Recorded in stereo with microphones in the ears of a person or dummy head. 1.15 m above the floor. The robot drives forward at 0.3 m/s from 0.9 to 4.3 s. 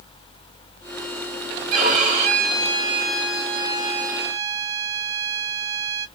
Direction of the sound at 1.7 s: 40° right (ahead or behind).